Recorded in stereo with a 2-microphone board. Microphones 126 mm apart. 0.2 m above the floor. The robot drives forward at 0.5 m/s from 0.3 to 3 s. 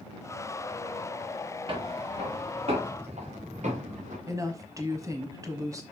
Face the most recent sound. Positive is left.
turn(degrees=-25)  # may be behind; listen again after turning